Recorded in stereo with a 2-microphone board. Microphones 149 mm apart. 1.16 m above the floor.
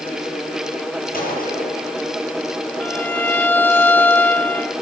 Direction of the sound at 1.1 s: 75° left (ahead or behind).